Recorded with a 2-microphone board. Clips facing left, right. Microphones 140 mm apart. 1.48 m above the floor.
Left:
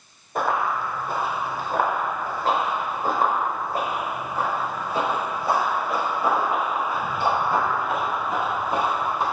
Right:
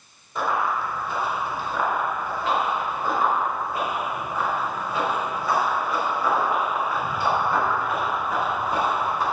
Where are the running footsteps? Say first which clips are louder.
Left 1 dB; 55° left (ahead or behind), 4.5 m; by 9.2 s 20° left (ahead or behind), 9 m.